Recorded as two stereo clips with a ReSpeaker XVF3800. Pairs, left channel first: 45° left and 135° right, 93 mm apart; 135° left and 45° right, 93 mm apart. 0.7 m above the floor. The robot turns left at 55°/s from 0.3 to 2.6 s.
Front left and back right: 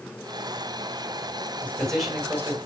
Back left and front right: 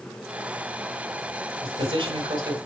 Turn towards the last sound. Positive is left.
turn(degrees=-75)